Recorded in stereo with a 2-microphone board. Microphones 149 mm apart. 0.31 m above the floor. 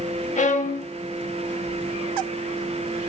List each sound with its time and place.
0.4 s a violin: 55° left (ahead or behind), 0.5 m